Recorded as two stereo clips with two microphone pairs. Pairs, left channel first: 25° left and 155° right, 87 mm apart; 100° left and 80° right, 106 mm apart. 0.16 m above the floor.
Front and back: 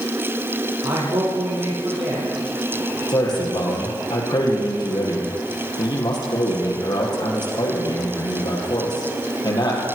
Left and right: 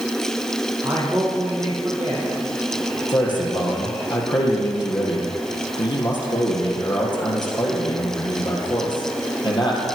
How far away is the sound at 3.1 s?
About 4.5 m.